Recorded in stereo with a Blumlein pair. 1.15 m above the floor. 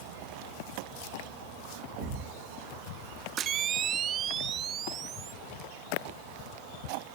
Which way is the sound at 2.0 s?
45° right.